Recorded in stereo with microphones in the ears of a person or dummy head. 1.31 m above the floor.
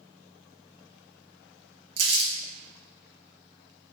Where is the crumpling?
90° right, 1.6 m.